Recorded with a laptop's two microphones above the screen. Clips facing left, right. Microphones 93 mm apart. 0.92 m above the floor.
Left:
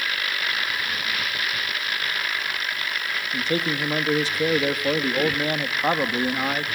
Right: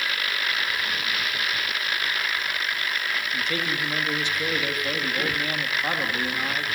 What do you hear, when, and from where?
3.3 s a man speaking: 35° left (ahead or behind), 1.3 m